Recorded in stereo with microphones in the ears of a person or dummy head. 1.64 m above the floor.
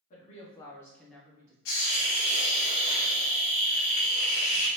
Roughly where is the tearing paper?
No tearing paper in this recording.